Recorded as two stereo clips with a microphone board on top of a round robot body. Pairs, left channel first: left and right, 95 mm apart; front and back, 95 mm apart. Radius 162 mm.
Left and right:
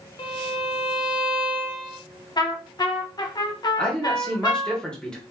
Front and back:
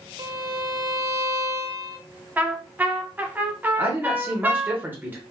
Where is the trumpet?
115° left, 0.9 m.